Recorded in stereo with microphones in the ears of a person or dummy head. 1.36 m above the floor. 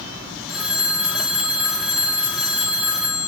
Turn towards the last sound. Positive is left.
turn(degrees=0)  # may be behind; listen again after turning